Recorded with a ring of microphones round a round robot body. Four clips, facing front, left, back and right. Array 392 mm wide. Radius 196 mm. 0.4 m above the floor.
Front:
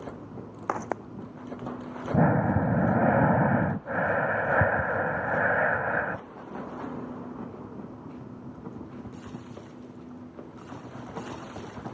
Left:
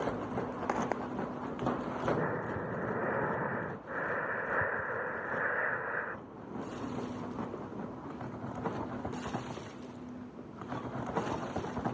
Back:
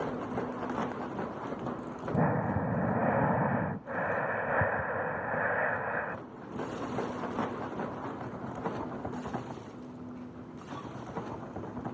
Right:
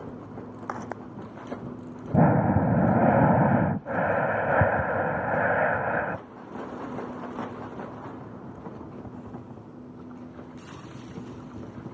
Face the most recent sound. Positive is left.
turn(degrees=-70)